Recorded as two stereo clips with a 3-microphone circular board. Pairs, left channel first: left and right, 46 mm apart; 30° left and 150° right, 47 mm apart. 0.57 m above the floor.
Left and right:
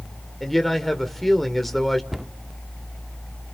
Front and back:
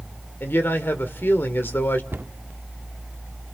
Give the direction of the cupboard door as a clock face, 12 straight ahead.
6 o'clock.